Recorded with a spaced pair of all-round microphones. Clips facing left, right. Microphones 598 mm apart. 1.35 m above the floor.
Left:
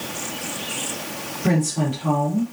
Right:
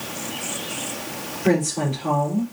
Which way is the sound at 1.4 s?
60° left (ahead or behind).